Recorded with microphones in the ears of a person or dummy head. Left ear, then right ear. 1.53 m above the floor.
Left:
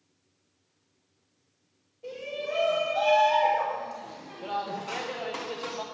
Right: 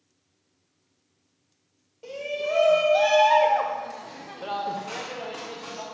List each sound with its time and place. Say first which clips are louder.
2.0 s a shout: right 5 dB; 55° right (ahead or behind), 1.5 m; by 5.8 s 30° left (ahead or behind), 0.9 m